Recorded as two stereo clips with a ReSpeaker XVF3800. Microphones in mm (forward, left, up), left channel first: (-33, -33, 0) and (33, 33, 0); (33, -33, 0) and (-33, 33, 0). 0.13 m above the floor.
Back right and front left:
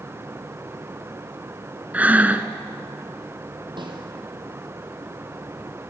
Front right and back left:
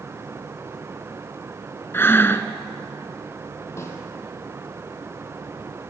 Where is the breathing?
10° right, 1.3 m.